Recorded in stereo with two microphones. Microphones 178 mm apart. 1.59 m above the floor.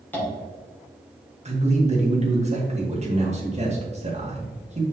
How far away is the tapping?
About 3 m.